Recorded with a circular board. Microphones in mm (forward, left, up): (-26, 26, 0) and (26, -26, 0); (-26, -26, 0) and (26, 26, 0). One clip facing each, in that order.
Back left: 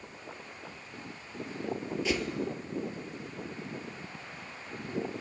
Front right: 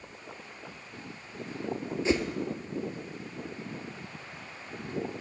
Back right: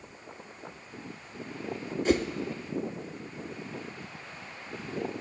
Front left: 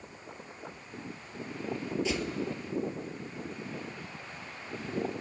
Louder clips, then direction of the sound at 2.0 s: Front right 5 dB, back right 11 dB; 100° right.